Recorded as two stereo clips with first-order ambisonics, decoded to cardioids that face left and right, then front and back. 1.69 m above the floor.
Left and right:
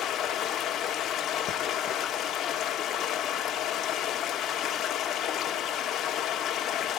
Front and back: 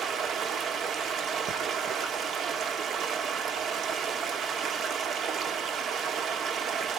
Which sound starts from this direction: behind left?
Running water, at 0.0 s.